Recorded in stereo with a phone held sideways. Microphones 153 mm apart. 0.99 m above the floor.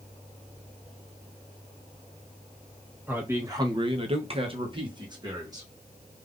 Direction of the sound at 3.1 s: 15° right (ahead or behind).